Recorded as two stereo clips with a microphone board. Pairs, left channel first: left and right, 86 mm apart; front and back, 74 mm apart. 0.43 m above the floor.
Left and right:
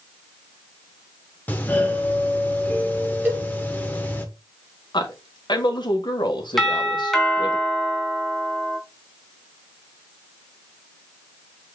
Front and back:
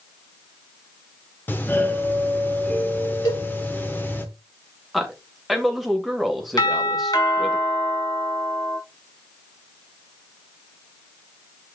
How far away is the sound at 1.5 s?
About 1.4 m.